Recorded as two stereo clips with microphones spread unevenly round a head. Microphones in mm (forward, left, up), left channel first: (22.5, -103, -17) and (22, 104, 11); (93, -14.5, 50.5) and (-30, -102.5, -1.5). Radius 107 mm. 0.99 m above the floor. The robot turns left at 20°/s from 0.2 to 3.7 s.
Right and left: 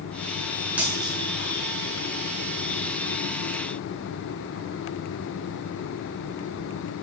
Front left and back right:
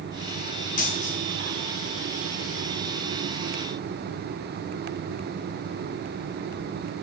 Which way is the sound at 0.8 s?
5° left.